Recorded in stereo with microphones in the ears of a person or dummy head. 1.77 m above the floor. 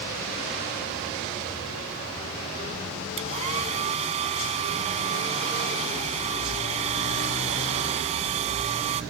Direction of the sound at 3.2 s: 30° right (ahead or behind).